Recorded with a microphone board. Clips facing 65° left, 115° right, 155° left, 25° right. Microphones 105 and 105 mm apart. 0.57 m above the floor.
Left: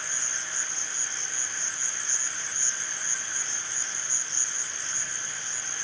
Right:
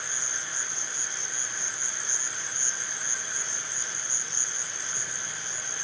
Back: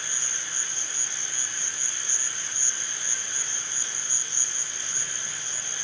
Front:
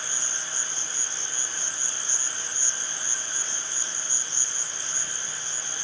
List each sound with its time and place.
0.0 s an insect: 130° right